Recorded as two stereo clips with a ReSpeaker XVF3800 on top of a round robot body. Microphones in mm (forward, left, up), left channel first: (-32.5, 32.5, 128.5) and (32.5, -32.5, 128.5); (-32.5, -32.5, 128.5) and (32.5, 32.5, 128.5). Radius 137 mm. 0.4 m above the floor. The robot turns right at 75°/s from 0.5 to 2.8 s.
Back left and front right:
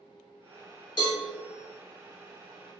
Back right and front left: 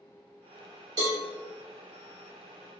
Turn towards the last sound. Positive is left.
turn(degrees=-140)